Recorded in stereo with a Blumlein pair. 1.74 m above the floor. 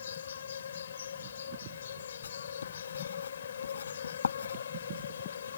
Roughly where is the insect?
Ahead left.